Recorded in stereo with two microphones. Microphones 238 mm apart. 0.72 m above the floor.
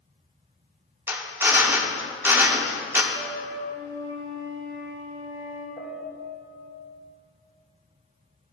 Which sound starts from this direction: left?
A piano, at 5.8 s.